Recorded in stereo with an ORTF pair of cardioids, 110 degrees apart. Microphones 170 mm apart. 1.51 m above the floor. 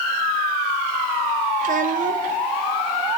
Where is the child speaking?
55° right, 2.5 m.